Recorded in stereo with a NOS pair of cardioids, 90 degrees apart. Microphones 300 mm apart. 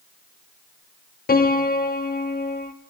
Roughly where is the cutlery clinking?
I don't hear cutlery clinking.